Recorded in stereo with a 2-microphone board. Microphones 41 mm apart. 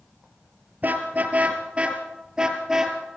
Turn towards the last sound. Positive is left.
turn(degrees=-10)  # may be behind; listen again after turning